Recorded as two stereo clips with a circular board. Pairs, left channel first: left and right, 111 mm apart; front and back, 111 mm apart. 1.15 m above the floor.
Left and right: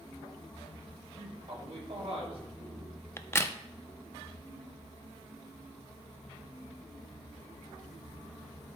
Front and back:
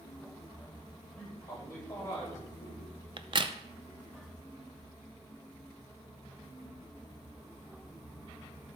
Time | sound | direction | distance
1.2 | a man speaking | 70° right | 5 m
3.2 | a crack | 150° left | 0.6 m